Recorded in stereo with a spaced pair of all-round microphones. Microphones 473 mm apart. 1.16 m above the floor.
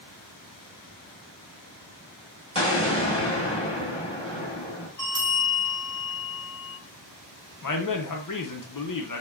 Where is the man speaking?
45° left (ahead or behind), 0.5 m.